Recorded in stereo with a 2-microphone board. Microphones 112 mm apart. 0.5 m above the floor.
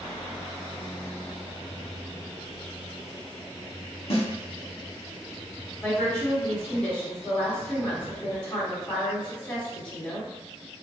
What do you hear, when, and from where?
4.1 s a snare drum: 60° left (ahead or behind), 0.8 m
5.8 s a woman speaking: 10° left (ahead or behind), 1.4 m